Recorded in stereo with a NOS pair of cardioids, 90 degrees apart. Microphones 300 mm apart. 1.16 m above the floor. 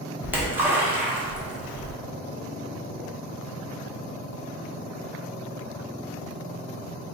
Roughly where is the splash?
Ahead.